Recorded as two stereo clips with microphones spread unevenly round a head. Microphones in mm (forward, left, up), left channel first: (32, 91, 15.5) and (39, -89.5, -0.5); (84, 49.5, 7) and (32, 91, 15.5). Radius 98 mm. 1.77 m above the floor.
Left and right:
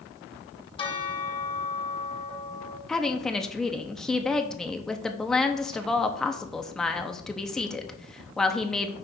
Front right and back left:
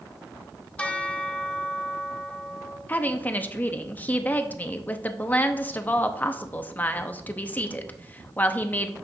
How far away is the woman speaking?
About 0.7 m.